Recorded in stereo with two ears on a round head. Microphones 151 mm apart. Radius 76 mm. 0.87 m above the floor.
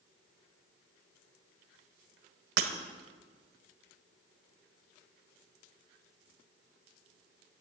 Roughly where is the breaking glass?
Right.